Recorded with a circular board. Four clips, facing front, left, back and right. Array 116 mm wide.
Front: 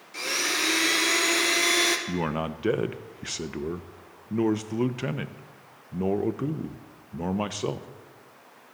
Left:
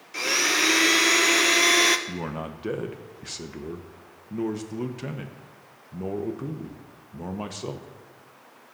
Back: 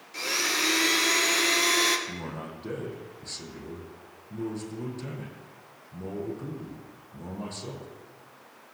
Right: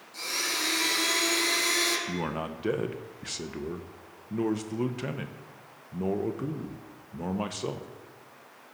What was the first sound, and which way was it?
A blender, 85° left.